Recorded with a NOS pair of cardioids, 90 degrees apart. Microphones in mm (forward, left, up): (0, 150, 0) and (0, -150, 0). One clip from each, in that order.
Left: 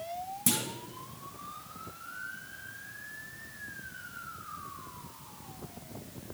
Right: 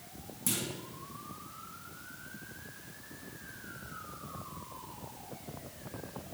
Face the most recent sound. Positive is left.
turn(degrees=35)